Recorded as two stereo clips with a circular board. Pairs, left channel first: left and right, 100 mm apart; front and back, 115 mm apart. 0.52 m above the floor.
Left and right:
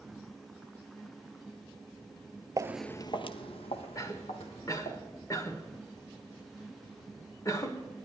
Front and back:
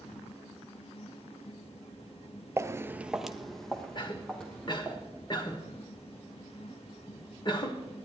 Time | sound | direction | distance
2.6 | footsteps | 125° right | 0.6 m
4.0 | a cough | 40° left | 1.6 m